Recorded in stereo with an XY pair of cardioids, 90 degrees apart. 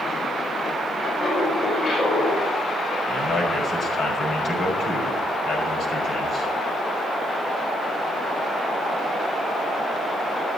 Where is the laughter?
50° left, 6 m; by 3.0 s 65° left, 4.5 m.